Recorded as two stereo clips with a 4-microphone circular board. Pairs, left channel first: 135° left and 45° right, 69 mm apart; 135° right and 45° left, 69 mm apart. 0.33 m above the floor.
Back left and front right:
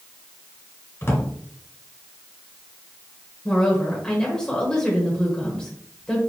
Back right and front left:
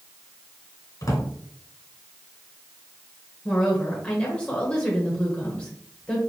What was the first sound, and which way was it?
A drawer, 175° right.